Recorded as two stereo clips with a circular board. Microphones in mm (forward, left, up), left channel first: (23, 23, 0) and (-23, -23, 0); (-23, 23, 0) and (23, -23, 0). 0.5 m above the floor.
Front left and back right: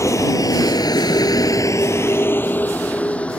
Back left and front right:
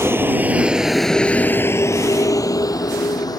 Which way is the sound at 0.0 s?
5° left.